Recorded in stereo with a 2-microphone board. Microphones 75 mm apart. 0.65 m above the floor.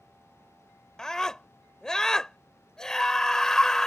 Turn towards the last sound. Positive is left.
turn(degrees=5)  # may be behind; listen again after turning